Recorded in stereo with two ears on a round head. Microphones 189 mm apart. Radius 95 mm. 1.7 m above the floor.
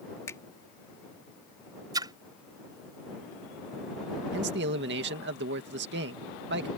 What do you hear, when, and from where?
0.3 s a finger snap: 15° left (ahead or behind)
1.9 s a splash: 20° right (ahead or behind)
4.3 s a man speaking: 60° right (ahead or behind)